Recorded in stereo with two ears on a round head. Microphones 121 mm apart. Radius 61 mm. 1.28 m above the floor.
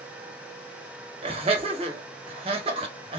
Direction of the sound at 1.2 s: 45° right (ahead or behind).